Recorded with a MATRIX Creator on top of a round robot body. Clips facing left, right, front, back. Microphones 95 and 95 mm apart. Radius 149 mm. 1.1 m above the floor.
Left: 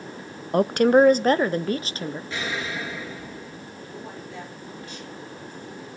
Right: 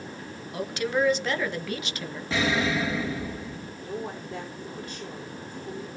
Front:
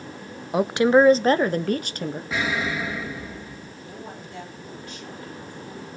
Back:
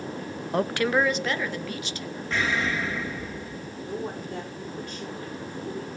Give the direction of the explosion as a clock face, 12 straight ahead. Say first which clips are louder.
Right 5 dB, back 1 dB; 3 o'clock.